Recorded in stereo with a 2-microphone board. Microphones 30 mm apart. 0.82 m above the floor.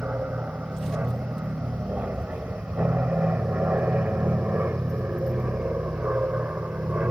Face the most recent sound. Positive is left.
turn(degrees=-70)  # may be behind; listen again after turning